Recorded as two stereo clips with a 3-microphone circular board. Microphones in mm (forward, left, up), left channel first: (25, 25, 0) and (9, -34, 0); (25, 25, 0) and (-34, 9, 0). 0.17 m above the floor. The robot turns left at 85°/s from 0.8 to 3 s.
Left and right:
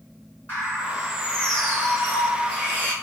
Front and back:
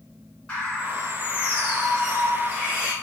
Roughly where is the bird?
Left.